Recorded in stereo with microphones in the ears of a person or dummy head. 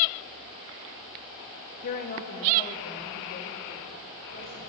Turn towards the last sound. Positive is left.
turn(degrees=50)  # may be behind; listen again after turning